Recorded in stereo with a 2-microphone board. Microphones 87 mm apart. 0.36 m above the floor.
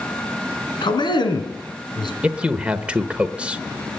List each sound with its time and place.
0.8 s a man speaking: 60° left (ahead or behind), 3.5 m
2.2 s a man speaking: 15° right (ahead or behind), 0.9 m